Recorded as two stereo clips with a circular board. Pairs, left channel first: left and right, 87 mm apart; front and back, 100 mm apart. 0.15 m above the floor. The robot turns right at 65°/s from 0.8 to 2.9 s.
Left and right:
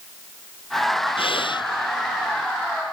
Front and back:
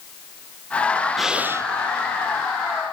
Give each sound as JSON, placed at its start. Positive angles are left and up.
{"t": 1.2, "sound": "breathing", "azimuth_deg": 90}